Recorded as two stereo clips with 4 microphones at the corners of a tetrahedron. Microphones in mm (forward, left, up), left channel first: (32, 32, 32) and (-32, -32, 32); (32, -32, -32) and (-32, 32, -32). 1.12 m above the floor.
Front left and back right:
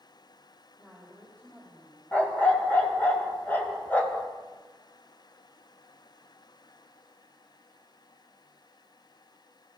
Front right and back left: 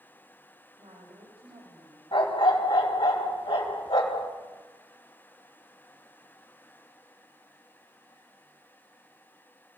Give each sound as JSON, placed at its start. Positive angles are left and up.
{"t": 0.8, "sound": "a woman speaking", "azimuth_deg": 120, "distance_m": 6.5}
{"t": 2.1, "sound": "a dog barking", "azimuth_deg": -25, "distance_m": 3.0}